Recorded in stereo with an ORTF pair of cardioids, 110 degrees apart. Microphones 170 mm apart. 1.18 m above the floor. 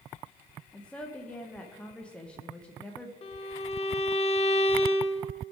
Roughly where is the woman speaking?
Ahead.